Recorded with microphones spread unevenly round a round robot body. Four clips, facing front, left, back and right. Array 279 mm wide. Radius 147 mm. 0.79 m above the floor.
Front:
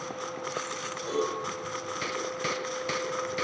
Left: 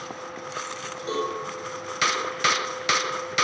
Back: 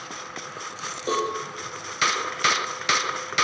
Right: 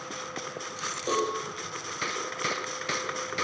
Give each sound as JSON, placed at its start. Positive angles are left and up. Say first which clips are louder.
{"t": 1.1, "sound": "a cowbell", "louder": "even, back 4 dB", "azimuth_deg": -175, "distance_m": 7.0}